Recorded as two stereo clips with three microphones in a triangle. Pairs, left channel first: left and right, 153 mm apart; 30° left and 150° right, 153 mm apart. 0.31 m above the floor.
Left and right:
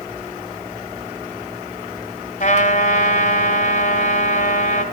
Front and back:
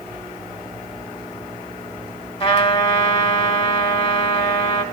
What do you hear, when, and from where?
2.4 s a trumpet: 70° left, 1.6 m